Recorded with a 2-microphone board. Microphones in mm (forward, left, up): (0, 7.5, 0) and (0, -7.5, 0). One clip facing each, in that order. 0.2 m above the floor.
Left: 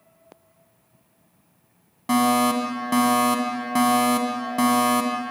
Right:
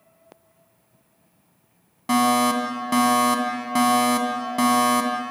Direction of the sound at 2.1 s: 10° right (ahead or behind).